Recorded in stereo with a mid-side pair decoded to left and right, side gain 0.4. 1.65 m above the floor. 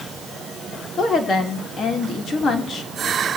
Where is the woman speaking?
55° left, 3.5 m.